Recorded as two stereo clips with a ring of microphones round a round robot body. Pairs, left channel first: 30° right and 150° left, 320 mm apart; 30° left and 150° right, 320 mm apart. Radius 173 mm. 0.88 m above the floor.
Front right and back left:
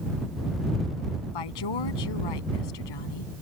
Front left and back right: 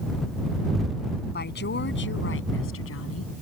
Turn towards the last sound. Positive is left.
turn(degrees=-20)